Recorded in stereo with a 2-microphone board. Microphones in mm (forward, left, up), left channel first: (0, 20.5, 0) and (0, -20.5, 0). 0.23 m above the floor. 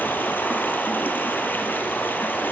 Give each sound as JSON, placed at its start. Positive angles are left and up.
{"t": 0.0, "sound": "running water", "side_deg": 60, "distance_m": 2.0}